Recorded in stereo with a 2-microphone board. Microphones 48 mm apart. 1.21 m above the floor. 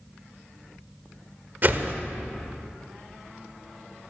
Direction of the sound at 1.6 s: 45° right (ahead or behind).